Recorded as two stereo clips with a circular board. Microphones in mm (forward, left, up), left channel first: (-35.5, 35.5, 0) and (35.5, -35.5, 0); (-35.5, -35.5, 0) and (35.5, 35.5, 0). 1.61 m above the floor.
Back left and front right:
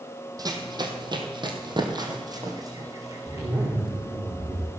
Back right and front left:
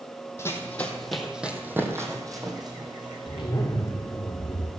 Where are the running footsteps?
80° right, 2.5 m; by 3.5 s 10° left, 4.5 m.